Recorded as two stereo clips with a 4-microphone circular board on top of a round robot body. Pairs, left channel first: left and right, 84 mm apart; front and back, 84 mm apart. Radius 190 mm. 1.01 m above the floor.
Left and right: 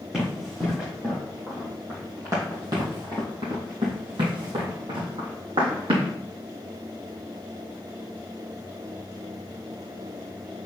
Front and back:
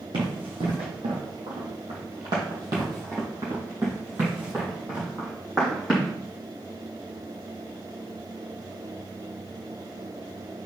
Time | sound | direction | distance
0.1 | running footsteps | 170° right | 2.5 m